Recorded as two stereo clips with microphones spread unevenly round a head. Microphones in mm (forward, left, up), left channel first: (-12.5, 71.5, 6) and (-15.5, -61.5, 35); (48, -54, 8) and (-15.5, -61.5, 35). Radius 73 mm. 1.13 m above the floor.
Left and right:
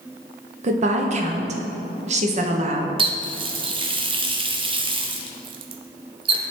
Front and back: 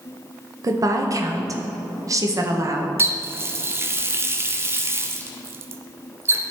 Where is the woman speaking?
130° right, 1.2 m.